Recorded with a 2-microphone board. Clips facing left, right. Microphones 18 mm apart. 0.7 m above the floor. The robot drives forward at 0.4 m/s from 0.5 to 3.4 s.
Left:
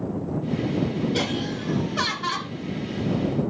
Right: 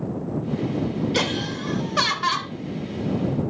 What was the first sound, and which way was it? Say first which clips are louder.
Laughter: right 2 dB; 40° right (ahead or behind).